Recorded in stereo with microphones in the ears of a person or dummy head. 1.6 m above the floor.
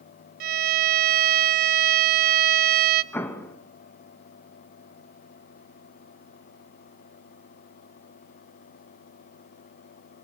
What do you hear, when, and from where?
0.4 s a violin: 55° right (ahead or behind), 0.9 m
3.1 s an explosion: 10° left (ahead or behind), 2 m